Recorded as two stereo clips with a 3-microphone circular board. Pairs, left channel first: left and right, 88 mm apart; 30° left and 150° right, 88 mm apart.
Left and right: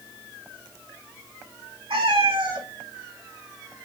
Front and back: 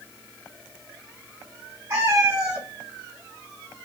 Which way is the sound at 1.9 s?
90° right.